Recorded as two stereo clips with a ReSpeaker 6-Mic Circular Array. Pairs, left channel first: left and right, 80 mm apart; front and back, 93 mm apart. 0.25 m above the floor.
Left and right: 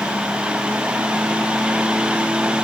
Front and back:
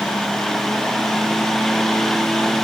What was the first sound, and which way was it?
Only background noise.